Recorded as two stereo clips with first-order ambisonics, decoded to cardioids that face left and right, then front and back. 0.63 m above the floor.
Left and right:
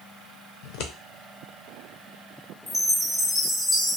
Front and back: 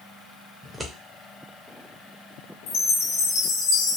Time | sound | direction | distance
0.6 | scissors | 95° left | 0.5 m
2.7 | a chime | 5° left | 0.6 m